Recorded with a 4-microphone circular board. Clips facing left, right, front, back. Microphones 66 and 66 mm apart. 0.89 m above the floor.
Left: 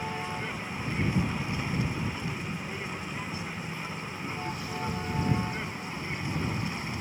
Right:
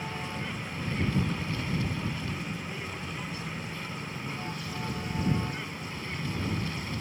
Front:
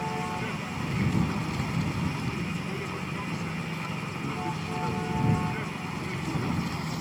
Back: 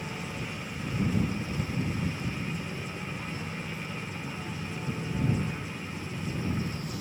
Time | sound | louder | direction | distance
0.0 | a vehicle | left 2 dB, front 6 dB | 20° left | ?